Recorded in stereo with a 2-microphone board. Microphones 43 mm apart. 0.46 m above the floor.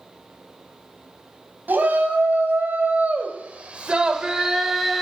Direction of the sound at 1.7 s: 50° right (ahead or behind).